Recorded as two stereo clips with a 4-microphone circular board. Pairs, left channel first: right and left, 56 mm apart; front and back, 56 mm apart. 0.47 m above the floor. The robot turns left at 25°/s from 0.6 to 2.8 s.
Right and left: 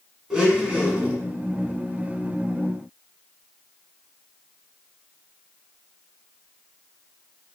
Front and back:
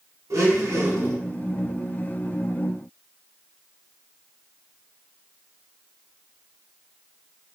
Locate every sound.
0.3 s a blender: 165° left, 0.9 m; by 1.2 s 155° left, 0.9 m